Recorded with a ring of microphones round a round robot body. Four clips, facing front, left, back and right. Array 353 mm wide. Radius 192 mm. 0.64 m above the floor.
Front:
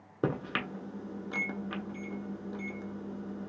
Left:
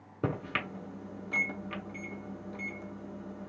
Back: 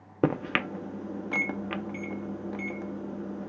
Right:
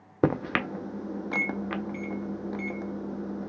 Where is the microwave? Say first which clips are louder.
Right 9 dB, back 6 dB; 125° right, 0.6 m.